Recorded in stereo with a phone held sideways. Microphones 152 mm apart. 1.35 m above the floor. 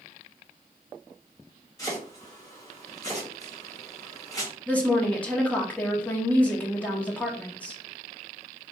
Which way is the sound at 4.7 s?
10° left (ahead or behind).